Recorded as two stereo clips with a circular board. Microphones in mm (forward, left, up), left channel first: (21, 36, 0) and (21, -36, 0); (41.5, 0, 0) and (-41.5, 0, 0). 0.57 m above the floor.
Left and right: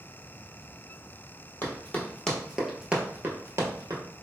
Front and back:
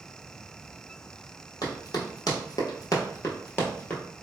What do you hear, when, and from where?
1.6 s running footsteps: 30° left, 1.1 m; by 4.0 s 65° right, 0.9 m